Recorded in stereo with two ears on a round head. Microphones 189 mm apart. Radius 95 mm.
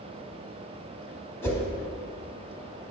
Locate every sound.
1.4 s a whoosh: 10° left (ahead or behind), 1.4 m